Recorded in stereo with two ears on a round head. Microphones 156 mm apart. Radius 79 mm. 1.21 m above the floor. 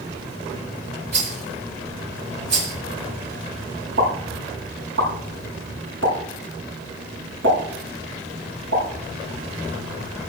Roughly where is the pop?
Right.